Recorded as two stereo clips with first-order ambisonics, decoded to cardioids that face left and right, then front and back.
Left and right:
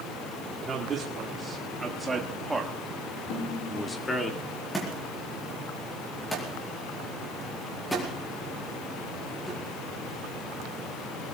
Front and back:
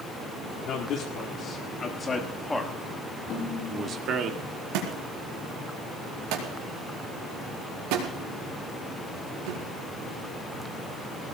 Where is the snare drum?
50° left, 6 m.